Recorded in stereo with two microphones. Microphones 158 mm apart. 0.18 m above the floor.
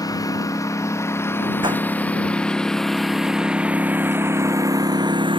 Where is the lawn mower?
25° left (ahead or behind); by 5.4 s 30° right (ahead or behind).